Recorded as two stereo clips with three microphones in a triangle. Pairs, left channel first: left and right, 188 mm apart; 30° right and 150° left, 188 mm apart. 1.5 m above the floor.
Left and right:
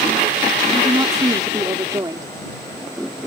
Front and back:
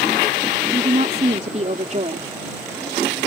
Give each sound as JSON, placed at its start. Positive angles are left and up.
{"t": 0.7, "sound": "a woman speaking", "azimuth_deg": -160}